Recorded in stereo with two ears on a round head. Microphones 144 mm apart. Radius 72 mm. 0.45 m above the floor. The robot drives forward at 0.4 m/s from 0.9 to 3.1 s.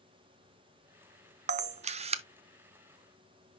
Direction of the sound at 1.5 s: 45° right (ahead or behind).